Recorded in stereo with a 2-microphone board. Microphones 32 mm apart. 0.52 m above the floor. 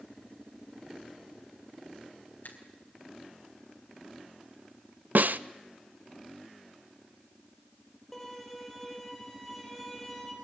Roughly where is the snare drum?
Right.